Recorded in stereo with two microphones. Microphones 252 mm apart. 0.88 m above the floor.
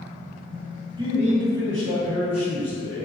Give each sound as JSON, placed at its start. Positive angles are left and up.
{"t": 1.0, "sound": "a man speaking", "side_deg": -15, "distance_m": 0.7}